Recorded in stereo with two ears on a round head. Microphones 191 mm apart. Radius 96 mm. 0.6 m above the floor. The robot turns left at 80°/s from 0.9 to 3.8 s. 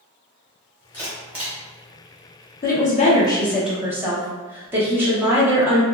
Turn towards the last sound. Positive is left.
turn(degrees=-15)